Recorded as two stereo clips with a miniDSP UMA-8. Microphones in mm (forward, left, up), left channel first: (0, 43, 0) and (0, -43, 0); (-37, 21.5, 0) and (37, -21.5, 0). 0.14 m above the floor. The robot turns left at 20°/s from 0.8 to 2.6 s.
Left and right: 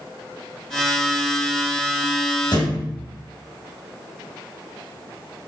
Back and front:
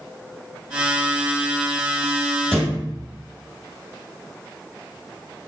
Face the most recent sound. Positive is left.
turn(degrees=60)